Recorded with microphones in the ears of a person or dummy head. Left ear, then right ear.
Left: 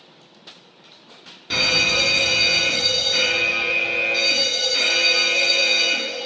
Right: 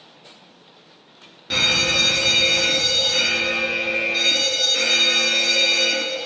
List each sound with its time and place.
1.5 s a fire alarm: 5° left (ahead or behind), 0.6 m